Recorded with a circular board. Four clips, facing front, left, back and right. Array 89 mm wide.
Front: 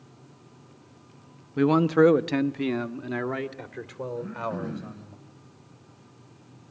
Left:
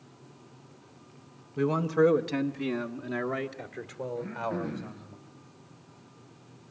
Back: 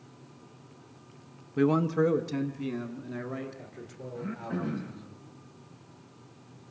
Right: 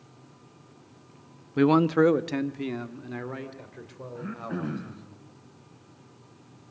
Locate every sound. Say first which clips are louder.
1.6 s a man speaking: right 5 dB, front 5 dB; 80° right, 0.6 m; by 5.2 s 15° left, 3.5 m
4.2 s throat clearing: even, front 1 dB; 100° right, 3.5 m